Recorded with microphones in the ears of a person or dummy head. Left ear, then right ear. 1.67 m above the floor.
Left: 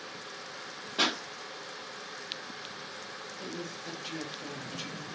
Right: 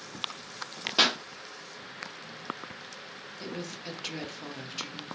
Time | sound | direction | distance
1.0 | a pop | 40° right (ahead or behind) | 0.6 m
3.3 | a woman speaking | 65° right (ahead or behind) | 1.0 m